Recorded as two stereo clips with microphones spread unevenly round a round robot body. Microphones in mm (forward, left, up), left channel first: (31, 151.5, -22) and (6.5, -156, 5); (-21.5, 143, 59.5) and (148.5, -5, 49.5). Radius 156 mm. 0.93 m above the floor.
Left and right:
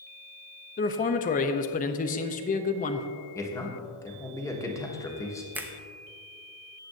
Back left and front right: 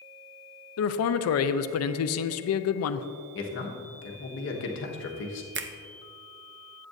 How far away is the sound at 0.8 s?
About 0.6 m.